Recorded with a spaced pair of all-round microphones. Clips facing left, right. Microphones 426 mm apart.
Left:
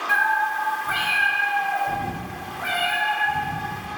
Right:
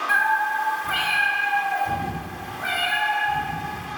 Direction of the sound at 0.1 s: 60° right (ahead or behind).